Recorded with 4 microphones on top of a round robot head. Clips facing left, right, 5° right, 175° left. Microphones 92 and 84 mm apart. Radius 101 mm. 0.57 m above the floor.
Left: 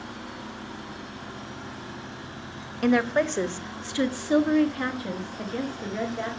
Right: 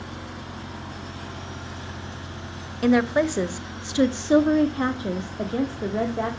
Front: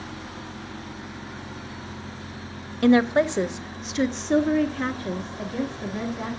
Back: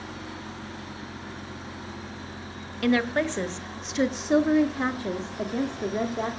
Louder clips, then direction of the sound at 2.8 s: Right 3 dB, front 6 dB; 10° right.